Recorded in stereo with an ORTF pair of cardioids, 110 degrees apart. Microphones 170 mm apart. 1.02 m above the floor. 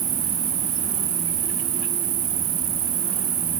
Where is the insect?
55° right.